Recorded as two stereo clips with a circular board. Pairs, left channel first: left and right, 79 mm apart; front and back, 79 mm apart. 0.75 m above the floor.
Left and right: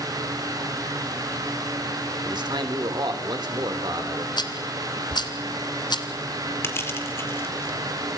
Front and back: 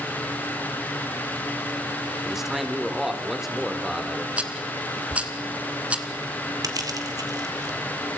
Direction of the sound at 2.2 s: 95° right.